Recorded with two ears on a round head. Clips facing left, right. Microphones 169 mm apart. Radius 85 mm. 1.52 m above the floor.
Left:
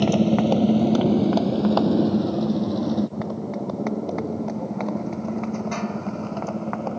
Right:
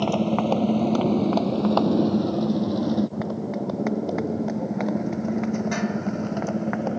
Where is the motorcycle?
20° left (ahead or behind); by 7.0 s 15° right (ahead or behind).